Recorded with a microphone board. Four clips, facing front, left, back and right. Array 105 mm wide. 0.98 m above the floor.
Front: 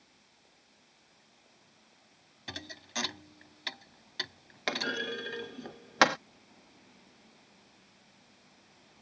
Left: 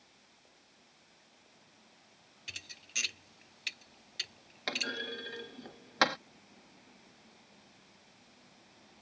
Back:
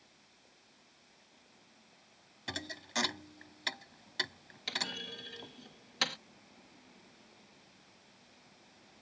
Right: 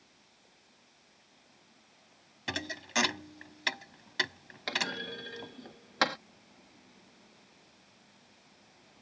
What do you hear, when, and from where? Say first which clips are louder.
2.5 s a thud: right 17 dB, back 2 dB; 95° right
4.7 s a clunk: right 2 dB, front 9 dB; straight ahead